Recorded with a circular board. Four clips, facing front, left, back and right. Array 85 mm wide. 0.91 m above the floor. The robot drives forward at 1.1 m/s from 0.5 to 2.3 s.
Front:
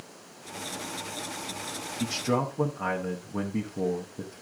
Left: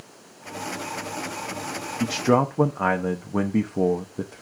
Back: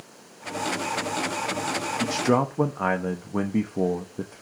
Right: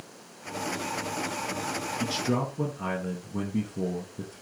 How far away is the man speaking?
About 0.7 m.